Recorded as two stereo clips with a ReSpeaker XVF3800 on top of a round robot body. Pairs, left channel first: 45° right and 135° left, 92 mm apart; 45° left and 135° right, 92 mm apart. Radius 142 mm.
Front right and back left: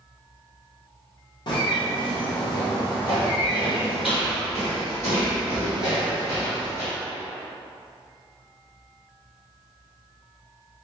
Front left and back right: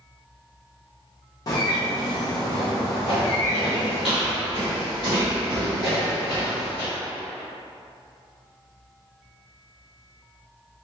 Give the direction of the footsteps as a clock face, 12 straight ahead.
9 o'clock.